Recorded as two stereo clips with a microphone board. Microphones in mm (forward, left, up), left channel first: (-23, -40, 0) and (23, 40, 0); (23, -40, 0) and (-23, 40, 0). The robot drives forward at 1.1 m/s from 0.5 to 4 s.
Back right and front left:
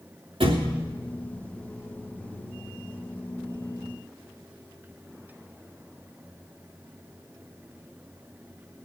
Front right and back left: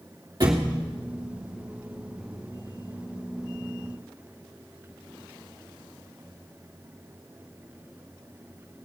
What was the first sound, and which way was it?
A thud, 75° left.